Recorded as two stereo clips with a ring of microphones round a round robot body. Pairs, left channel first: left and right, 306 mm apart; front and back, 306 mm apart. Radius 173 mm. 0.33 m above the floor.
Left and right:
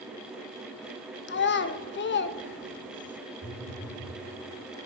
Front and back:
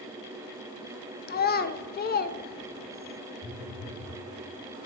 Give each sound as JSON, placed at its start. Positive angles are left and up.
{"t": 1.3, "sound": "a child speaking", "azimuth_deg": 50, "distance_m": 0.5}
{"t": 3.4, "sound": "a phone buzzing", "azimuth_deg": -25, "distance_m": 1.5}